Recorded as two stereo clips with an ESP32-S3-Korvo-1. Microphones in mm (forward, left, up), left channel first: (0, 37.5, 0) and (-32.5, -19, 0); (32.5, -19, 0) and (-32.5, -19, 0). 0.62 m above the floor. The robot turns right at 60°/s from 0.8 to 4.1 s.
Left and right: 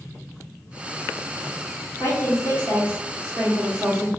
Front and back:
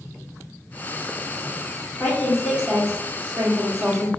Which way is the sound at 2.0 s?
70° left.